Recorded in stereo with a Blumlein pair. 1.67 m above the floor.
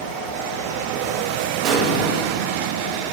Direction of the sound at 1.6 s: 35° right.